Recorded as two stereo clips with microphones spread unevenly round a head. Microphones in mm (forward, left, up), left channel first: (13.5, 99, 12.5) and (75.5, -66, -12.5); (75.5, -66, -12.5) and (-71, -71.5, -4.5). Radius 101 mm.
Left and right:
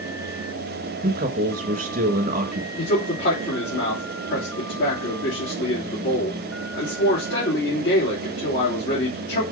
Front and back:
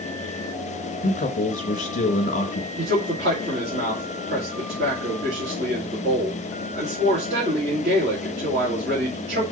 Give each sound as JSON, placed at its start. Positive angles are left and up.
{"t": 1.0, "sound": "a man speaking", "azimuth_deg": -30, "distance_m": 1.6}
{"t": 2.8, "sound": "a man speaking", "azimuth_deg": 150, "distance_m": 3.0}